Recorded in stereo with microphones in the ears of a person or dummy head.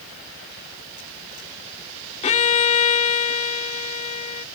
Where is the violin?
30° left (ahead or behind).